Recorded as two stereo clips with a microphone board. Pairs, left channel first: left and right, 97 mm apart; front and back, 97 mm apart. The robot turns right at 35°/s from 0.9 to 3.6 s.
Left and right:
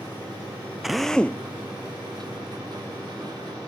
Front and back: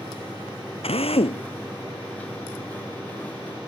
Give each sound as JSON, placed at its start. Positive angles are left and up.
{"t": 0.8, "sound": "a drill", "azimuth_deg": 0}